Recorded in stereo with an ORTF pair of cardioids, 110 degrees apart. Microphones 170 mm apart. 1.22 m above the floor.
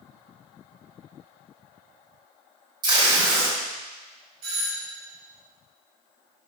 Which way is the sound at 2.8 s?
25° right.